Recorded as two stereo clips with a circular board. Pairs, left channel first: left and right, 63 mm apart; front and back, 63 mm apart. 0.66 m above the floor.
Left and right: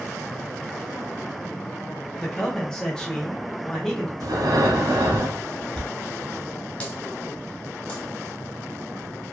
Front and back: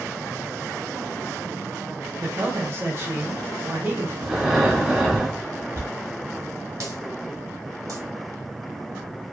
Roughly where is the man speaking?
Behind.